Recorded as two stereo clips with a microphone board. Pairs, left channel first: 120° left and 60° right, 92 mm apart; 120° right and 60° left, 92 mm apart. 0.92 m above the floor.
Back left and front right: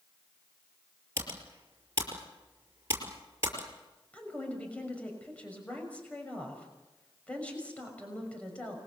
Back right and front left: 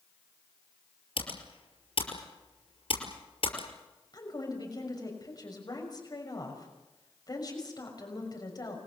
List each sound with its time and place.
1.2 s typing on a keyboard: 120° right, 5.5 m
4.1 s a woman speaking: 165° right, 6 m